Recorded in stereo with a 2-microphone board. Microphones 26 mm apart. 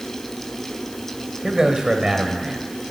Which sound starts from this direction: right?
A man speaking, at 1.4 s.